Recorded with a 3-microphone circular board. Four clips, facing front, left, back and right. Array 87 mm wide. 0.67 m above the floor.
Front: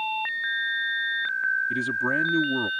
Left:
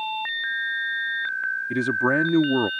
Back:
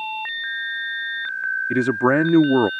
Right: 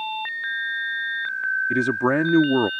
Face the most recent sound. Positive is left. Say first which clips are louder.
# even, back 8 dB
turn(degrees=-165)